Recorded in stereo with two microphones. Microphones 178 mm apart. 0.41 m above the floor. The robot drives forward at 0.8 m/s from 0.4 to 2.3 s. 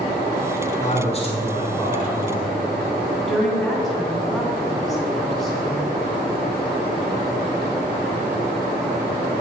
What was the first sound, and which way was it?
A man speaking, 35° left (ahead or behind).